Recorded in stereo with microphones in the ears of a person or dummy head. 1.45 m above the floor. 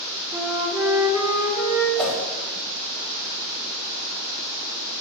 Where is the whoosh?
Centre (ahead or behind), 4 m.